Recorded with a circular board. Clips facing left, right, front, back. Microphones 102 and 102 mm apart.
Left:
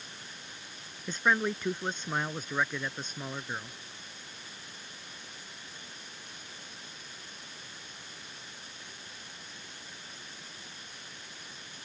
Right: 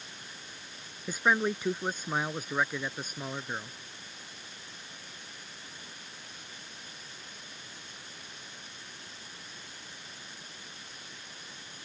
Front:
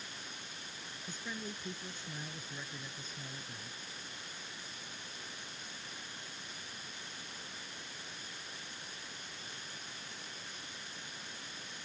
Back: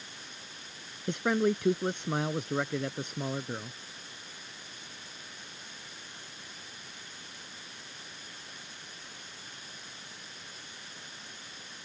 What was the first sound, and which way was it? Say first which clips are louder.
A man speaking: right 1 dB, back 18 dB; 170° right.